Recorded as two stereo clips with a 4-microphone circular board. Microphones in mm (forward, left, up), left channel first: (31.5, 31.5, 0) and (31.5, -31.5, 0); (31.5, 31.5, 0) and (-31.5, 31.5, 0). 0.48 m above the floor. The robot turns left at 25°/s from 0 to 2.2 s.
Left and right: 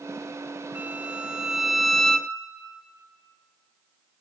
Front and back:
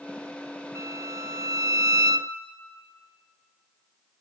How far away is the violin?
About 0.8 m.